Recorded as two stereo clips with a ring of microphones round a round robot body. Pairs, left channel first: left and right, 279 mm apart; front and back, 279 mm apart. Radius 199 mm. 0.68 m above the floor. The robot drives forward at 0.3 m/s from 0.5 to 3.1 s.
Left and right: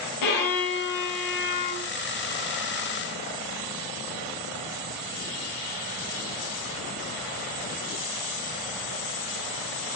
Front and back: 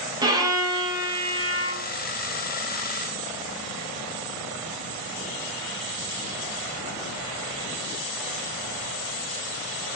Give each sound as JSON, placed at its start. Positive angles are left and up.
{"t": 0.2, "sound": "a violin", "azimuth_deg": 105, "distance_m": 4.5}